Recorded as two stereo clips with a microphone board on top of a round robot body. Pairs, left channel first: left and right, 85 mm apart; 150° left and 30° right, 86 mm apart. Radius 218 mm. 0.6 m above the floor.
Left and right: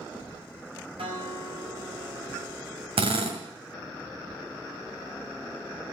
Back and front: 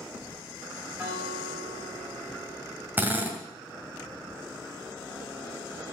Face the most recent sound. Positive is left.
turn(degrees=-100)